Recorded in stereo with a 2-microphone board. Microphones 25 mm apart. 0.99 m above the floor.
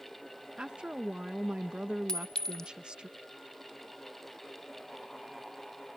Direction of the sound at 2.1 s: 25° left (ahead or behind).